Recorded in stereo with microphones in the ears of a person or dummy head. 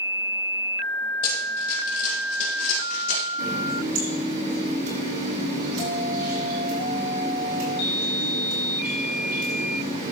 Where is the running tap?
55° right (ahead or behind), 7.5 m.